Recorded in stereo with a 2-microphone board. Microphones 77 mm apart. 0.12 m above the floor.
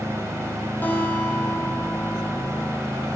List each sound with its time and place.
0.8 s a guitar: 25° left (ahead or behind), 3.5 m